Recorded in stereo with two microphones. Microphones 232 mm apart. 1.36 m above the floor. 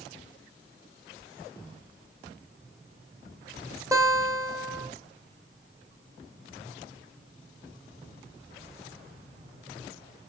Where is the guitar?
15° right (ahead or behind), 2.5 m.